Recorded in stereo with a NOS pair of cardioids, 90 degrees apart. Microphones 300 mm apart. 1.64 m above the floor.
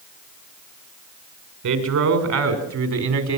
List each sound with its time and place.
1.6 s a man speaking: 70° right, 8 m